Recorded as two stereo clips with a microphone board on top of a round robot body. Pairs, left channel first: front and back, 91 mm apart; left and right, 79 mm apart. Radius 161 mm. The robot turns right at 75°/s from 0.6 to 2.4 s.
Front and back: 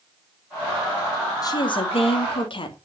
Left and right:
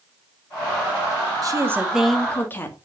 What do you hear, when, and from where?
1.4 s a woman speaking: 50° right, 2.5 m; by 2.8 s 25° left, 2.5 m